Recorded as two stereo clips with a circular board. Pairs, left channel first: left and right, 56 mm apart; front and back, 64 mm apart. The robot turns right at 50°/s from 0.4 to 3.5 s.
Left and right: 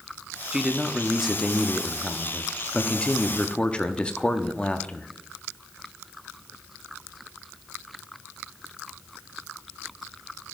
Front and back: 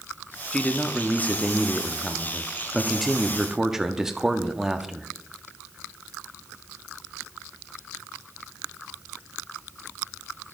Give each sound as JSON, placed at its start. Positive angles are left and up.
{"t": 0.5, "sound": "a man speaking", "azimuth_deg": -35, "distance_m": 0.7}